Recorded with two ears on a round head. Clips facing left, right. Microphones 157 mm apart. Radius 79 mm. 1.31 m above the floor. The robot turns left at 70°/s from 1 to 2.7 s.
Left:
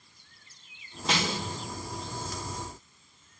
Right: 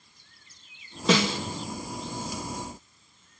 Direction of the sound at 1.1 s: 70° right (ahead or behind).